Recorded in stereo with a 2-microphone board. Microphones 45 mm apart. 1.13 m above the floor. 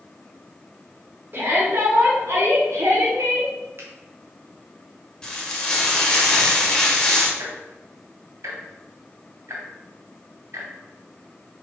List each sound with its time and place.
1.3 s a shout: 45° right (ahead or behind), 3 m; by 3.5 s 90° right, 3 m
3.8 s a finger snap: 60° right (ahead or behind), 2.0 m
5.2 s frying: 10° left (ahead or behind), 1.6 m
7.4 s ticking: 70° right (ahead or behind), 2.5 m